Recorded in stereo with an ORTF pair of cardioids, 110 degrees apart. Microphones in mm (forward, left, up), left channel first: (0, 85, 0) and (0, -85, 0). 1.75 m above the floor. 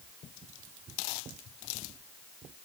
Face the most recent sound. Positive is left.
No sound to turn to.